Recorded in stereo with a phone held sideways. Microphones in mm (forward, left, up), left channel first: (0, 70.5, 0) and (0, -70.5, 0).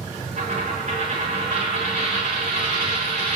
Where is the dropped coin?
55° right (ahead or behind), 7.5 m.